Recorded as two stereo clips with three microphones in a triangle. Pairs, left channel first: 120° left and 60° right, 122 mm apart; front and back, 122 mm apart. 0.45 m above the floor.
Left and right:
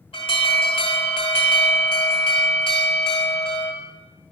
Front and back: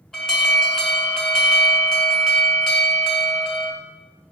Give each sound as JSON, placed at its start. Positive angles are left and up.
{"t": 0.1, "sound": "an alarm", "azimuth_deg": 85, "distance_m": 1.2}